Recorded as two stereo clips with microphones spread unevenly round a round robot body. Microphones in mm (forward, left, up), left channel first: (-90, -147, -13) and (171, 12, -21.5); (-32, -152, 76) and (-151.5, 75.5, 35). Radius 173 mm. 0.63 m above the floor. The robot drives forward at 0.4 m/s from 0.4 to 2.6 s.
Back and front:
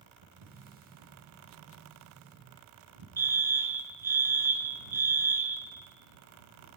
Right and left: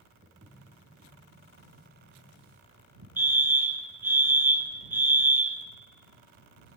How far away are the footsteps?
About 6 m.